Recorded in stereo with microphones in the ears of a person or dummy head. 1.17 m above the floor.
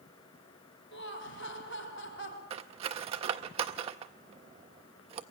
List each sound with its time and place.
0.9 s laughter: 60° left (ahead or behind), 1.9 m
2.5 s cutlery clinking: 30° right (ahead or behind), 0.5 m